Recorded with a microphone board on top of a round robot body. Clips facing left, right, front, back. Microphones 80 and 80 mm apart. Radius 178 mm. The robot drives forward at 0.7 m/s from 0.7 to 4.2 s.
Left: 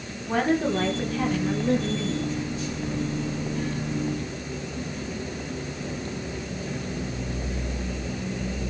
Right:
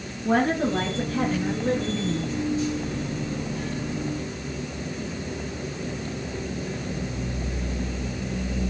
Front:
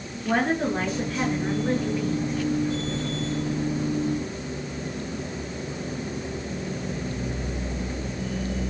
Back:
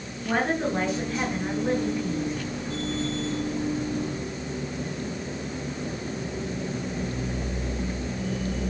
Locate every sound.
0.2 s a woman speaking: 90° right, 9 m; by 2.4 s 95° right, 9 m